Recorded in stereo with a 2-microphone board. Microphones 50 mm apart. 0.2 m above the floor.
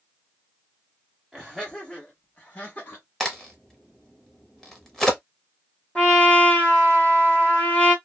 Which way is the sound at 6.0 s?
20° left (ahead or behind).